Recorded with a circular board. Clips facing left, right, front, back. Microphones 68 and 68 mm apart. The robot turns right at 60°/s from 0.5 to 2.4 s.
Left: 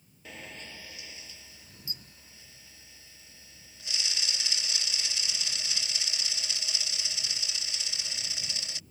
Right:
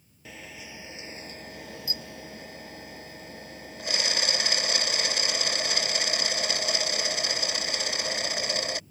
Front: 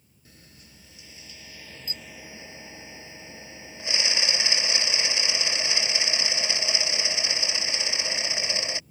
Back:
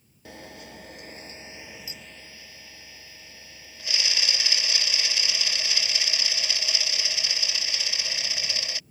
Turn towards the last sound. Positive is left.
turn(degrees=-65)